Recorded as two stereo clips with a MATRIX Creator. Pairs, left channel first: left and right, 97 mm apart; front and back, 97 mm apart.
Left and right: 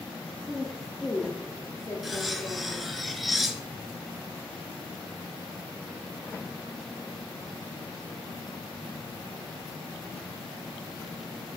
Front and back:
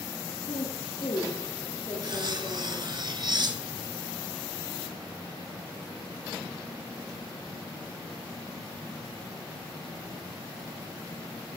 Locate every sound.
0.5 s a woman speaking: 15° right, 2.5 m; by 2.9 s 60° left, 3.5 m
2.0 s cutlery clinking: straight behind, 1.1 m